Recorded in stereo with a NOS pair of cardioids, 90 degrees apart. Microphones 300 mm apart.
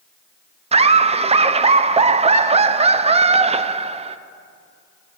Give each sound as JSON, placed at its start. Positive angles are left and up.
{"t": 0.7, "sound": "laughter", "azimuth_deg": -20, "distance_m": 0.6}